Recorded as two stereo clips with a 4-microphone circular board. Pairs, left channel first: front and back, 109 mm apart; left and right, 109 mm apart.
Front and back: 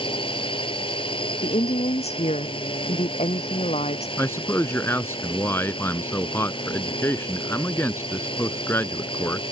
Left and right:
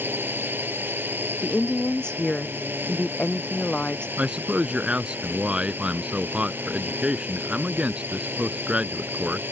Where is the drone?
20° right.